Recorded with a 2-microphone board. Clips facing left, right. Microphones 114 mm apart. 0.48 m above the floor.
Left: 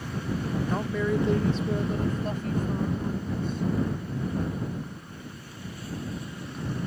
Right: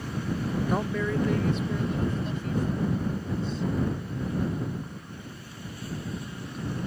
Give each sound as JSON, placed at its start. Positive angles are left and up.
{"t": 0.7, "sound": "a woman speaking", "side_deg": -15}